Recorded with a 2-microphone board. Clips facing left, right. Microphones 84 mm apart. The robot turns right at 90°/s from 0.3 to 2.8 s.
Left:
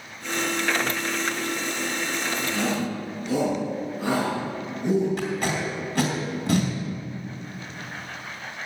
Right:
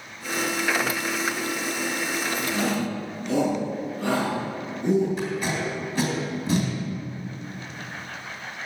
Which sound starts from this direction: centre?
A shout, at 2.5 s.